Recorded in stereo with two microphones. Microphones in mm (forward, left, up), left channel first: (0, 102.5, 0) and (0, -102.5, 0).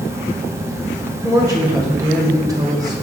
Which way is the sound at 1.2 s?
15° right (ahead or behind).